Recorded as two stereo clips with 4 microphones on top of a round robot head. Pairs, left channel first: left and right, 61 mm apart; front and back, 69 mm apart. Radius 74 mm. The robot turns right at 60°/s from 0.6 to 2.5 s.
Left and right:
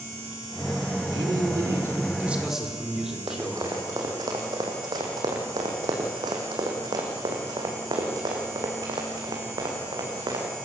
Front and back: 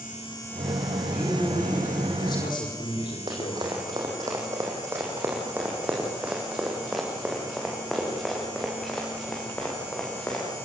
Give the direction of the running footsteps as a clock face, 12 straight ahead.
5 o'clock.